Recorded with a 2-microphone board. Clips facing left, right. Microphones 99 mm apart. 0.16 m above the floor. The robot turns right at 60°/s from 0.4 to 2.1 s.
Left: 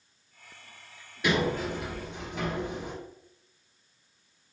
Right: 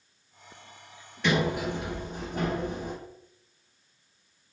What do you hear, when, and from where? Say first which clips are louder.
1.2 s a sliding door: right 1 dB; 170° left, 1.3 m; by 3.0 s 135° right, 1.3 m